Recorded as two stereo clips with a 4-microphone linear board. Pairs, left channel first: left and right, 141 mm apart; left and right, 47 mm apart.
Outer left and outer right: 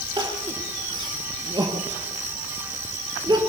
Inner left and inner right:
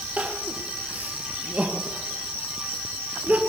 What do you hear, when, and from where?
0.2 s crying: 30° right (ahead or behind), 3.5 m